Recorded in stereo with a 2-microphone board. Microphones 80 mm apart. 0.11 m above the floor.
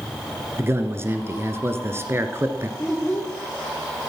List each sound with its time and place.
0.6 s a man speaking: 30° right (ahead or behind), 1.6 m
2.8 s a child speaking: 20° left (ahead or behind), 3 m